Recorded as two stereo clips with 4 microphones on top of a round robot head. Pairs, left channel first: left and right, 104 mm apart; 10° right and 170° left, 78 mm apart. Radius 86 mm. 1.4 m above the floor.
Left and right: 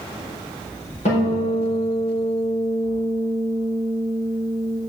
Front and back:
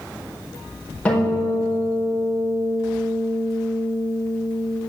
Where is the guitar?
60° left, 4 m.